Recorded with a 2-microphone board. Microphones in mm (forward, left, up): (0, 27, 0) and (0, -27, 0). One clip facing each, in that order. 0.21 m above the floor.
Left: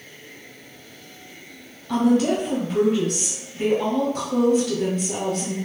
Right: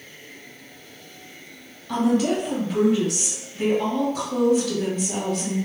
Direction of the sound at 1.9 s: 5° right (ahead or behind).